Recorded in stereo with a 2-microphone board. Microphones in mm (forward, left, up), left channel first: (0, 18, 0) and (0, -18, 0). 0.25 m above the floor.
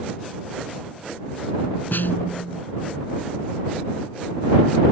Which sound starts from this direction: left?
A snare drum, at 1.9 s.